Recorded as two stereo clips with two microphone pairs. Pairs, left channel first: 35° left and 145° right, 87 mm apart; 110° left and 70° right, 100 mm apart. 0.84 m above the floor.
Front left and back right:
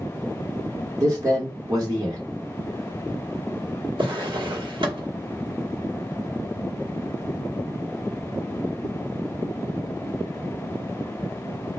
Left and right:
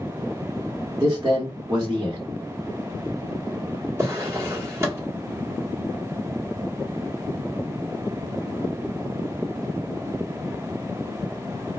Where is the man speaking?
120° right, 1.2 m.